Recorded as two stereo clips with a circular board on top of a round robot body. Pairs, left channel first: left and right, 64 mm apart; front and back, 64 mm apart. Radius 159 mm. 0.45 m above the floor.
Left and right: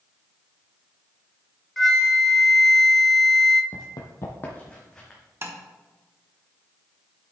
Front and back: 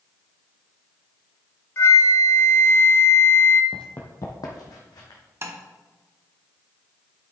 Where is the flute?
5° left, 0.9 m.